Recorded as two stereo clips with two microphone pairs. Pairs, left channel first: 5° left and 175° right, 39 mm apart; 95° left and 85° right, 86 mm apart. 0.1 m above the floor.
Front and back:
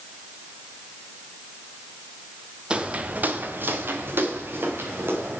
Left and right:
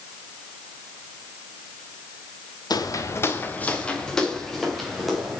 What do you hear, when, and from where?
2.7 s footsteps: 125° left, 1.0 m; by 5.4 s 175° right, 3 m